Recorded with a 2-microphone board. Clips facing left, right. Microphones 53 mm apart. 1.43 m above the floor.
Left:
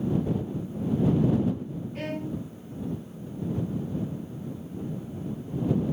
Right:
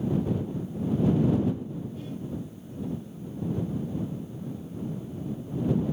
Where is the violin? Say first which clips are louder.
Left 3 dB; 70° left (ahead or behind).